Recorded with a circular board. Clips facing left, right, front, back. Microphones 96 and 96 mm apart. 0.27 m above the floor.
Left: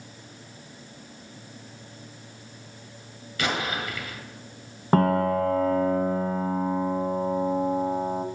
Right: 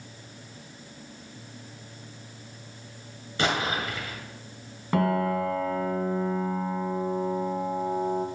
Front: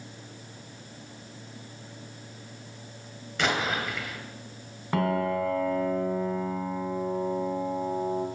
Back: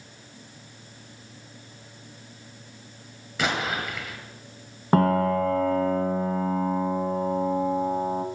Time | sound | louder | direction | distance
3.4 | an explosion | right 1 dB, even | 95° right | 1.6 m
4.9 | a piano | left 3 dB, back 5 dB | 130° left | 0.8 m